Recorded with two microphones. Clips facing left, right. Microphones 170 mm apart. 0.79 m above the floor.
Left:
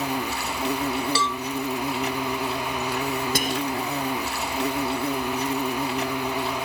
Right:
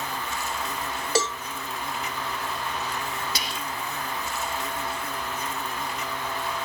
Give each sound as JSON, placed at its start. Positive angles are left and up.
{"t": 0.0, "sound": "an insect", "side_deg": 70}
{"t": 1.1, "sound": "a cowbell", "side_deg": -40}
{"t": 3.4, "sound": "whispering", "side_deg": 50}